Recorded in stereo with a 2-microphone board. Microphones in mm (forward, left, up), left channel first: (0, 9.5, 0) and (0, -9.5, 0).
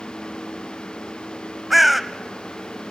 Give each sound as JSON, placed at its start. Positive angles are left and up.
{"t": 1.7, "sound": "a bird", "side_deg": -5, "distance_m": 1.0}